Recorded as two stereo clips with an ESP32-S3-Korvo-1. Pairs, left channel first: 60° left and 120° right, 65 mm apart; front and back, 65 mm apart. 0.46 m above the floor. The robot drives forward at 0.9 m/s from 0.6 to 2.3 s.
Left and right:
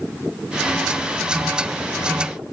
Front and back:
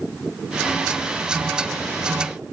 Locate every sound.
Only background noise.